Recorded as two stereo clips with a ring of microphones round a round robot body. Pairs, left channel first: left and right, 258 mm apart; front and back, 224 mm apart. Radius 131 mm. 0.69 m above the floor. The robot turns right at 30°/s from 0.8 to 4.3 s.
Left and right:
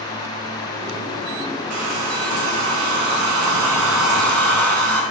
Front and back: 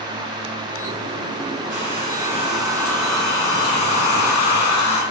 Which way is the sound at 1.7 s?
120° right.